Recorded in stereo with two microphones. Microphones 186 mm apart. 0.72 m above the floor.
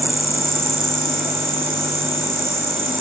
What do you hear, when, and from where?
0.0 s an insect: 50° right (ahead or behind), 1.5 m